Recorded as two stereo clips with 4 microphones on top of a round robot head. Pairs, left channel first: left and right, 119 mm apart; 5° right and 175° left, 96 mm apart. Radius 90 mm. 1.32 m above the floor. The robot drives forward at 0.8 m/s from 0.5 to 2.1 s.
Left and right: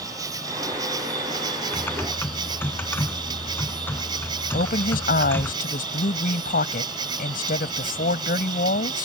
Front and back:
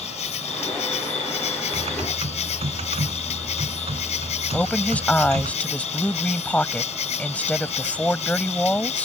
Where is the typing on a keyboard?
160° left; by 5.5 s 165° left.